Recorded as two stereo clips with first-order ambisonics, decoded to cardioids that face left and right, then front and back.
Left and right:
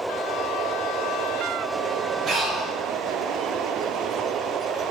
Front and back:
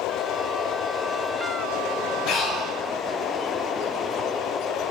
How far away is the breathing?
About 0.5 m.